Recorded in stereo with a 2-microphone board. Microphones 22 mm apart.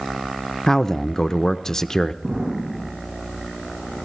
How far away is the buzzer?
No buzzer in this recording.